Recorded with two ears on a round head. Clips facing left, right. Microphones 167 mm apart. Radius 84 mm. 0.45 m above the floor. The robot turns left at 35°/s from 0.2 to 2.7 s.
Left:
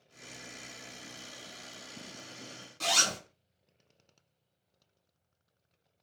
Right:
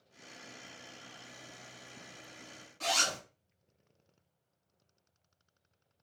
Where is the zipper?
55° left (ahead or behind), 1.4 m.